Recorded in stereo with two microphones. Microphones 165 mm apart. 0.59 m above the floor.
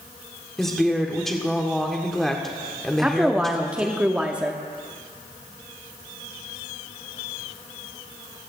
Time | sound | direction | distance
0.6 | a woman speaking | centre (ahead or behind) | 1.5 m
3.0 | a woman speaking | 5° right (ahead or behind) | 0.9 m